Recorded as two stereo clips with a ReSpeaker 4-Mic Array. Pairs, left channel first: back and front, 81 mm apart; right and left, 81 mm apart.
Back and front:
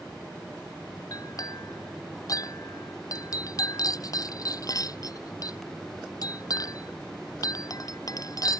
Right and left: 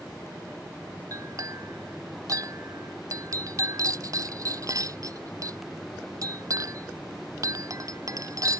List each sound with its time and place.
1.1 s a clink: 135° left